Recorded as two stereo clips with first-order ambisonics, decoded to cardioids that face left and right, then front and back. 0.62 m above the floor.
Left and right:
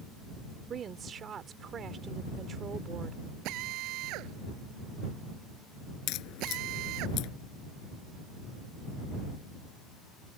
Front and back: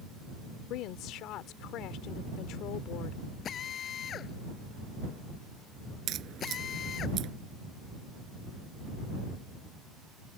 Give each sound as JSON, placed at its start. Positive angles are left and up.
{"t": 0.7, "sound": "a woman speaking", "azimuth_deg": -30}
{"t": 3.5, "sound": "a drill", "azimuth_deg": -60}
{"t": 6.1, "sound": "a crack", "azimuth_deg": 130}